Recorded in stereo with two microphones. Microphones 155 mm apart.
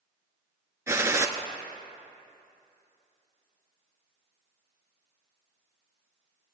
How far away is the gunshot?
About 0.8 m.